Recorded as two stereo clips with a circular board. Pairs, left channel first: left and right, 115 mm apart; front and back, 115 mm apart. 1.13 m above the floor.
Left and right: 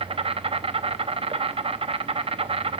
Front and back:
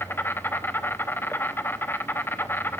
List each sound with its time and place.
0.0 s an insect: 70° right, 0.8 m